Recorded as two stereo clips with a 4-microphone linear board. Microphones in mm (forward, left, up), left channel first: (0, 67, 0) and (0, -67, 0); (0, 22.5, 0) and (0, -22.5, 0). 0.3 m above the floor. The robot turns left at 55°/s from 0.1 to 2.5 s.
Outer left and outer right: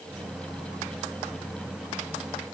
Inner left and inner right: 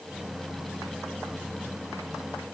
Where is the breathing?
I don't hear breathing.